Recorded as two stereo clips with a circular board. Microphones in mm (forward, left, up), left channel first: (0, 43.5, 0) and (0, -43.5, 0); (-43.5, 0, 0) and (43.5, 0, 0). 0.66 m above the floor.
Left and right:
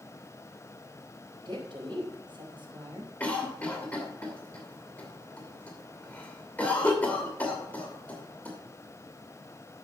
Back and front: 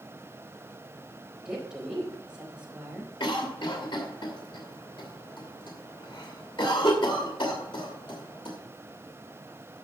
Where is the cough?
165° left, 2.5 m.